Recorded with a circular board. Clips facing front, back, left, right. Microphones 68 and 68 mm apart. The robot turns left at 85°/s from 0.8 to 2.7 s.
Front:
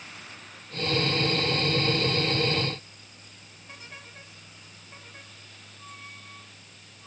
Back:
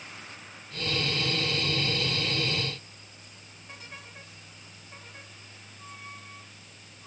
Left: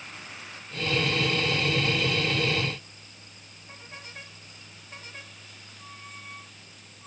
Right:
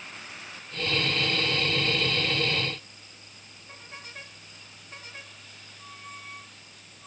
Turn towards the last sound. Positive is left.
No sound to turn to.